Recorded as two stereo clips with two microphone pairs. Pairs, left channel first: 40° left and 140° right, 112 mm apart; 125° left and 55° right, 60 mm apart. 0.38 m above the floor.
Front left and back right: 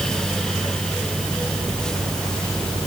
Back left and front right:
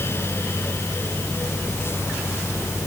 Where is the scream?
No scream in this recording.